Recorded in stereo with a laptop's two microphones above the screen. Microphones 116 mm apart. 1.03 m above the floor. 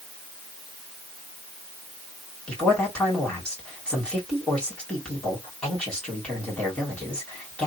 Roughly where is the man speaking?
Centre.